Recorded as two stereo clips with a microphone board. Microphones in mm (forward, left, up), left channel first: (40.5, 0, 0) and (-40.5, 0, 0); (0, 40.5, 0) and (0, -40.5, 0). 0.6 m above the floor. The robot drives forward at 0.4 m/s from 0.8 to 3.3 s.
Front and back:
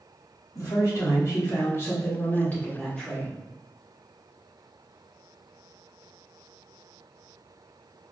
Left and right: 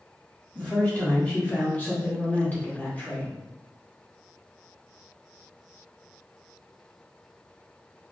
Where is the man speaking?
20° left, 1.6 m; by 3.5 s 80° left, 1.1 m.